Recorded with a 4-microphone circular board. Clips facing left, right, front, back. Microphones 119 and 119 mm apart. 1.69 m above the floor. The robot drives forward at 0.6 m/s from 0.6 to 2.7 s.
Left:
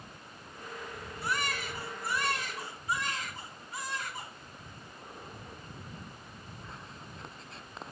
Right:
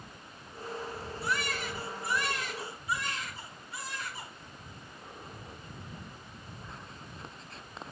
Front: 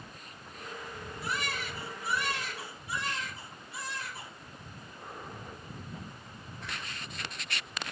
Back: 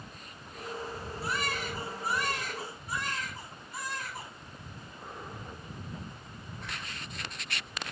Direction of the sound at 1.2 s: 125° left.